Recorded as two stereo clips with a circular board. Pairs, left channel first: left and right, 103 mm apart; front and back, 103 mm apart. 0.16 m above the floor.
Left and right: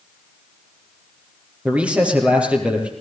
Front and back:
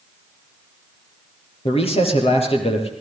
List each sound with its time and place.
1.6 s a man speaking: 10° right, 5 m